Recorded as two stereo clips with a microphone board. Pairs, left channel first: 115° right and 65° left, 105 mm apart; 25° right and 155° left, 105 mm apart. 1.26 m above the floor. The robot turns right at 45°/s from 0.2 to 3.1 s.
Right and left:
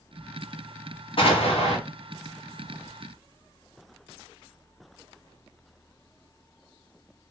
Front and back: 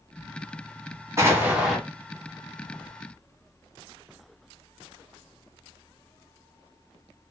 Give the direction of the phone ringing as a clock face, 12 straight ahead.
I don't hear a phone ringing.